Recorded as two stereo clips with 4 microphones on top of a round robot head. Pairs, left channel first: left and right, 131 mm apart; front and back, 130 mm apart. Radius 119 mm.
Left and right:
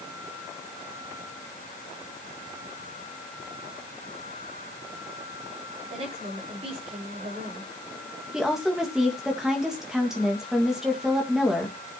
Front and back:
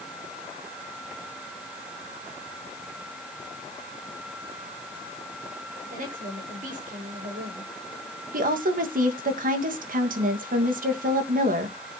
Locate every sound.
5.8 s a woman speaking: 145° right, 4.5 m
8.3 s a woman speaking: 175° right, 2 m